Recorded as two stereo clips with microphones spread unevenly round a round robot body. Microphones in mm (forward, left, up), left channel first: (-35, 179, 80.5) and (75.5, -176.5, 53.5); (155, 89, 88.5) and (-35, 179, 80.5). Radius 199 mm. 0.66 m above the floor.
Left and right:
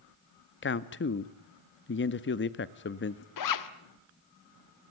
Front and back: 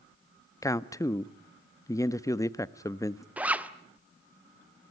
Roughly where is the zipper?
Left.